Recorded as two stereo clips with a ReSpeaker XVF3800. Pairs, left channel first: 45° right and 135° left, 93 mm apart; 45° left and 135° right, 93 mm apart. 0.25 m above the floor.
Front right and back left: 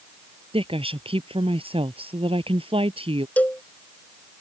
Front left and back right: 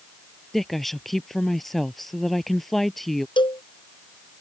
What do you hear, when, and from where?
0.5 s a woman speaking: 135° left
3.4 s a cowbell: 30° left